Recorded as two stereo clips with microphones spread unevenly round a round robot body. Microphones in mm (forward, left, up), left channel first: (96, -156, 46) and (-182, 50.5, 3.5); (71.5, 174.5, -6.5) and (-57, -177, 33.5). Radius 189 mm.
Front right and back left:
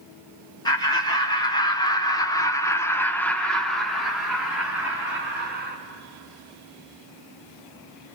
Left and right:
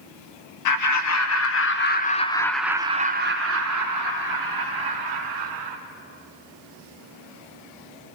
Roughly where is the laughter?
Ahead left.